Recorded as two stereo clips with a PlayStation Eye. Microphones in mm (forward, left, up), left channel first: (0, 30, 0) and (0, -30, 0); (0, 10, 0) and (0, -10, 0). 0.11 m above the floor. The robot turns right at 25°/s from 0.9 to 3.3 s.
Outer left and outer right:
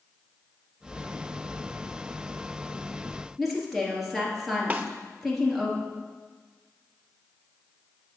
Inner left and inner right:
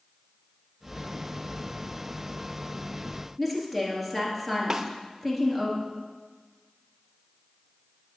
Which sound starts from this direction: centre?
A woman speaking, at 3.4 s.